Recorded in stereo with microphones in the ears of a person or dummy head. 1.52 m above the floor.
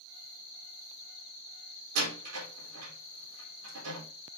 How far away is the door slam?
About 4 m.